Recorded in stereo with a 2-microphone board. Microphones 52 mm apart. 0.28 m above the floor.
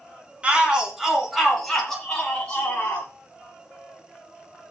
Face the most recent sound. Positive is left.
turn(degrees=25)  # may be behind; listen again after turning